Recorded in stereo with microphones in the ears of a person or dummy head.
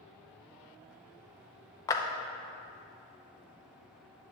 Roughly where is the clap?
Centre.